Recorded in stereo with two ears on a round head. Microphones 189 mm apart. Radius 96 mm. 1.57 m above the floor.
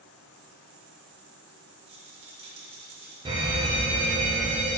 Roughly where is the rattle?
Right.